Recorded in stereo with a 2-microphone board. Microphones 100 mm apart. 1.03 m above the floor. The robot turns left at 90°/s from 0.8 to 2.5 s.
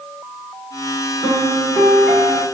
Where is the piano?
100° right, 2.5 m; by 2.4 s 150° left, 2.5 m.